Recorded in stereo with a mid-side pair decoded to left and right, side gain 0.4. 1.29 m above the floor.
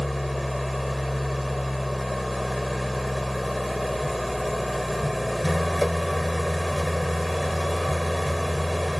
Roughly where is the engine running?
Ahead.